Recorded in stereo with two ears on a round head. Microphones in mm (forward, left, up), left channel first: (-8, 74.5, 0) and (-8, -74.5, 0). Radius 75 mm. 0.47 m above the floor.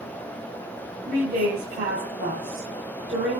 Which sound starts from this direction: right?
A woman speaking, at 1.1 s.